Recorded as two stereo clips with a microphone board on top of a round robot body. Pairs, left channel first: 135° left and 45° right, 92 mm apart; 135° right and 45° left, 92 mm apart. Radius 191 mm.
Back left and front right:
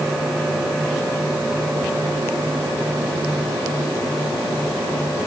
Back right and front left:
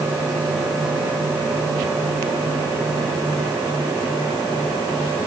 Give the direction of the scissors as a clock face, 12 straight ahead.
No scissors in this recording.